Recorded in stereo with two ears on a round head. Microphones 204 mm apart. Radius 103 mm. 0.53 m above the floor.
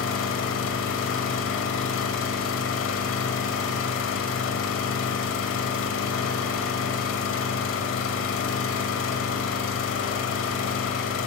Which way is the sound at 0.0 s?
60° left (ahead or behind).